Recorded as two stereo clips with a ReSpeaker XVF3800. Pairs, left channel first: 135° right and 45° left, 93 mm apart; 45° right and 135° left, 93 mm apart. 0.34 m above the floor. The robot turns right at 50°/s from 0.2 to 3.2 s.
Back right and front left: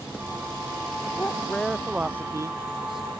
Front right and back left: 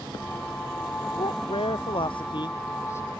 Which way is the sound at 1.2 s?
70° right.